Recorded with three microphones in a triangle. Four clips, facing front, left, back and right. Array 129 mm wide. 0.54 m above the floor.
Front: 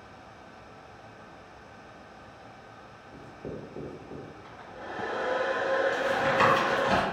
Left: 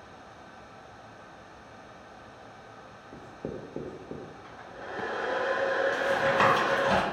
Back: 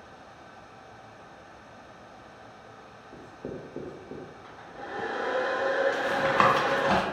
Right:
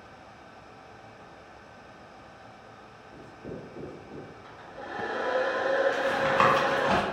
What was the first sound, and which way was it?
Writing, 110° left.